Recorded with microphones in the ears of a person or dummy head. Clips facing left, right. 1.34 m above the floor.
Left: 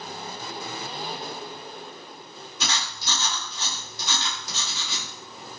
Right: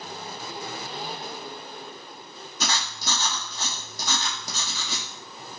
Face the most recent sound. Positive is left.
turn(degrees=-40)  # may be behind; listen again after turning